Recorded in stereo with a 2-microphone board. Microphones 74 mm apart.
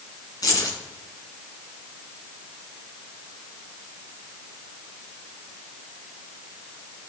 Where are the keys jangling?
55° left (ahead or behind), 3.5 m.